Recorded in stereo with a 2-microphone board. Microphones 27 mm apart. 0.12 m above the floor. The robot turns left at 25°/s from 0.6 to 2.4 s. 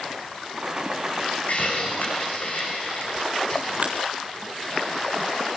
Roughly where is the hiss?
Left.